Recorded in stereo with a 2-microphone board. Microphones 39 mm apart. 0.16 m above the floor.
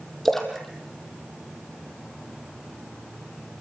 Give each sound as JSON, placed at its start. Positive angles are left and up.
{"t": 0.2, "sound": "a splash", "side_deg": 10, "distance_m": 3.5}